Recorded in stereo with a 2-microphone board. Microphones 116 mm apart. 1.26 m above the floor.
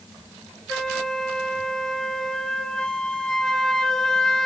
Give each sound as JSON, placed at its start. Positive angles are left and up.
{"t": 0.7, "sound": "a flute", "side_deg": 5, "distance_m": 0.7}